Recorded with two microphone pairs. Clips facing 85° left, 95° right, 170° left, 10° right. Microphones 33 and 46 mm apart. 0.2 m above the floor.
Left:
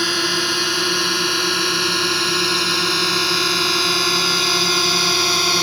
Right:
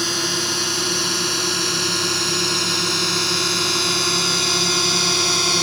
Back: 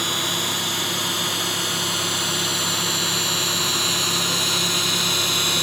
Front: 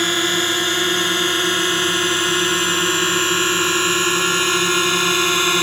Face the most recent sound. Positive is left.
turn(degrees=15)